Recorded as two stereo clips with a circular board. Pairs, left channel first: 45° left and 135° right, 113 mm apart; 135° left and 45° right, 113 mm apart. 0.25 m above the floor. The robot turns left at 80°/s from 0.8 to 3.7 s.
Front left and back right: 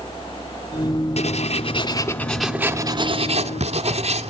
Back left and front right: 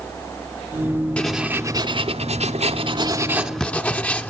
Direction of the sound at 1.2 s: 55° left.